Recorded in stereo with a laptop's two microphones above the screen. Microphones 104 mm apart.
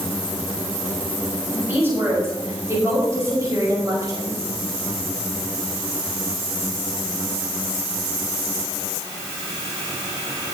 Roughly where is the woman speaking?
Right.